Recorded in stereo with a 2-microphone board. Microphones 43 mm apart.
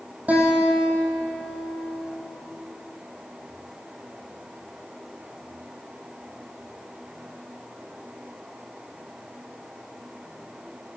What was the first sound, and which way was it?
A guitar, 35° right (ahead or behind).